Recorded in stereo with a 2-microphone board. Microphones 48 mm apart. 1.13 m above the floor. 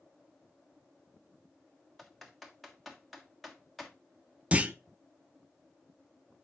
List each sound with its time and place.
2.0 s typing on a keyboard: centre (ahead or behind), 1.4 m
4.5 s a clunk: 25° right (ahead or behind), 0.6 m